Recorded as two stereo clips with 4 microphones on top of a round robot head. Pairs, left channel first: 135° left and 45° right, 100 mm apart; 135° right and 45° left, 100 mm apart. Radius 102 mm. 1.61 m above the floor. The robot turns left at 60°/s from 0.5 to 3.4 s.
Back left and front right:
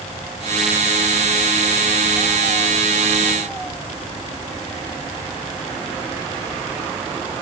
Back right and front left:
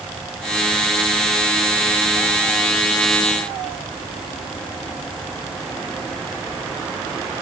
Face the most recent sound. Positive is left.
No sound to turn to.